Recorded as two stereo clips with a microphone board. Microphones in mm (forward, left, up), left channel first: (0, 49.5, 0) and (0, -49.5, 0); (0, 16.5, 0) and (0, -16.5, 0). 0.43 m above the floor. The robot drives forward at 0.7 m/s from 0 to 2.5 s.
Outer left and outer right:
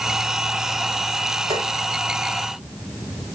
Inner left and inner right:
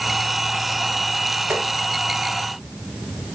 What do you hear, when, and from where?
1.5 s tapping: 60° right (ahead or behind), 7.5 m